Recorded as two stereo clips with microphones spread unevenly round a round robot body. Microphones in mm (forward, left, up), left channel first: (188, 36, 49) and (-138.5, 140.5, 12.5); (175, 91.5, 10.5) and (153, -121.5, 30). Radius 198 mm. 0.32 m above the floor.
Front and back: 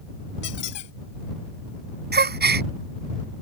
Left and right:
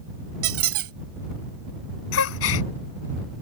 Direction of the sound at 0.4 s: 80° right.